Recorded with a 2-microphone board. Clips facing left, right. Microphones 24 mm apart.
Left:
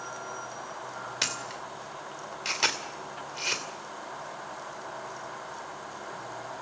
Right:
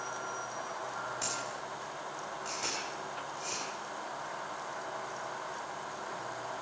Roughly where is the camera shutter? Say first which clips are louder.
Left 5 dB; left.